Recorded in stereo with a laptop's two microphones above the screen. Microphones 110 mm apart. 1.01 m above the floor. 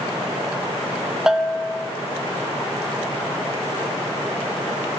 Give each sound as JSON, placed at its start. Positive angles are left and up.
{"t": 1.3, "sound": "a bell", "side_deg": -5, "distance_m": 0.6}